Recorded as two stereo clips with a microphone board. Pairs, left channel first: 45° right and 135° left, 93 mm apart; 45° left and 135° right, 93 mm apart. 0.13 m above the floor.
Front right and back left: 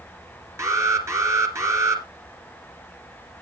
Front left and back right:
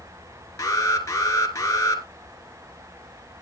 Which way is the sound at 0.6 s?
90° left.